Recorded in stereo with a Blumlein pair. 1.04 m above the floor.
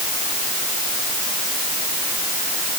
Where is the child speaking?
No child speaking in this recording.